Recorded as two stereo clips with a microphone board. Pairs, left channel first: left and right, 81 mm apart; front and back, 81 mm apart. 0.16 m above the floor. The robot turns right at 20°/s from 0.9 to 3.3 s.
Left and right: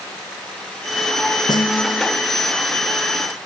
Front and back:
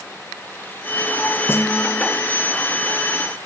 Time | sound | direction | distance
1.5 | a snare drum | 60° left | ?